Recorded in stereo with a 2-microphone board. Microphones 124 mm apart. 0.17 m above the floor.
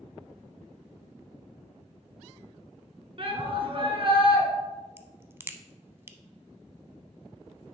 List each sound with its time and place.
3.2 s a shout: 45° right (ahead or behind), 1.7 m
5.0 s a crack: 20° right (ahead or behind), 0.5 m